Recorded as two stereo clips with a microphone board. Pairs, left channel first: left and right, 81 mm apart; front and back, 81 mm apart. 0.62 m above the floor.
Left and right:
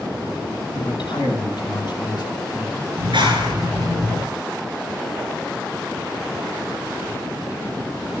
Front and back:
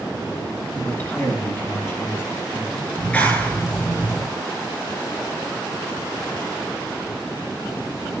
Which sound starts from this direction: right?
A clap, at 3.0 s.